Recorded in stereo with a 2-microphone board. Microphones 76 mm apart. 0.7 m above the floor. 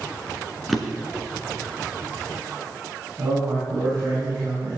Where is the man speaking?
45° right (ahead or behind), 6 m.